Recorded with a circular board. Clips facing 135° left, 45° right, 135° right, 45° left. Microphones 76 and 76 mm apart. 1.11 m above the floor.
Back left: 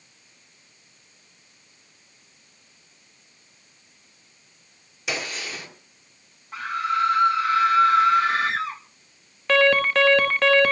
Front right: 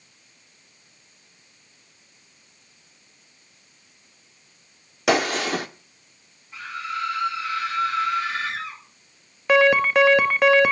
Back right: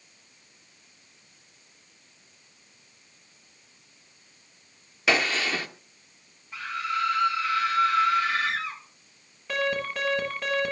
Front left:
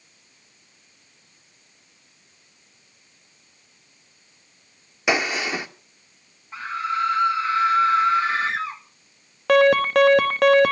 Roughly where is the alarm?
Ahead left.